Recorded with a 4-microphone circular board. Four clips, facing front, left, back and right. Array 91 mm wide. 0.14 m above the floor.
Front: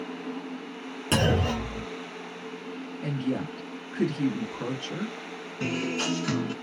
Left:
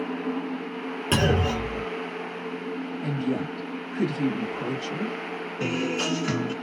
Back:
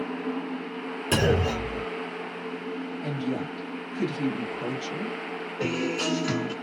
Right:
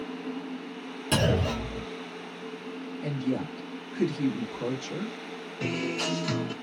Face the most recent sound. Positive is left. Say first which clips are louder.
# left 3 dB, back 2 dB
turn(degrees=80)